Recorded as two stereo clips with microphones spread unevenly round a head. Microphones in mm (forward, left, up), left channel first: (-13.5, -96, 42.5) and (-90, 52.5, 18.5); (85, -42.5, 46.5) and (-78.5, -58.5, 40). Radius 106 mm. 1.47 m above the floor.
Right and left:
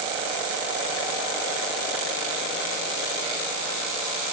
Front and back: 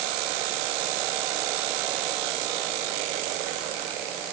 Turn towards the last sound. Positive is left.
No sound to turn to.